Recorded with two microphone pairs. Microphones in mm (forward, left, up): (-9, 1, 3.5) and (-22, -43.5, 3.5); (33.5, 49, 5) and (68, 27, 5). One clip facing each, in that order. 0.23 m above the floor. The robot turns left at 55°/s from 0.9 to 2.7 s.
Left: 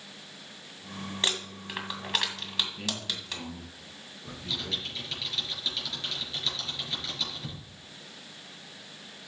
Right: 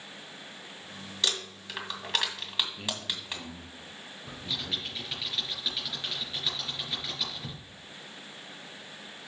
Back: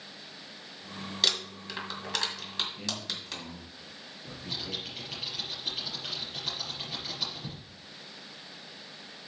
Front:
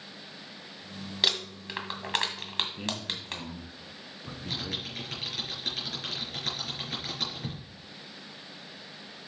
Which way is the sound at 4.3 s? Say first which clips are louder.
Left 1 dB, front 2 dB; 30° right.